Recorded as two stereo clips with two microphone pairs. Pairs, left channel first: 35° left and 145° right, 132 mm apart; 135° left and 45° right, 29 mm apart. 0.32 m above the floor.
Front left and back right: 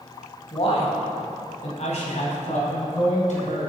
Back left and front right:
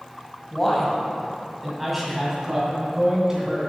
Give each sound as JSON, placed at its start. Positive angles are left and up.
{"t": 0.5, "sound": "a man speaking", "azimuth_deg": 55, "distance_m": 1.6}